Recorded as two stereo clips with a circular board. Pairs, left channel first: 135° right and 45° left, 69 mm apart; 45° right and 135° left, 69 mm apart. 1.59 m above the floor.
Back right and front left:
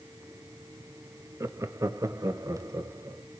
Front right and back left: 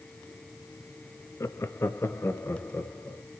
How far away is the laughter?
About 0.7 m.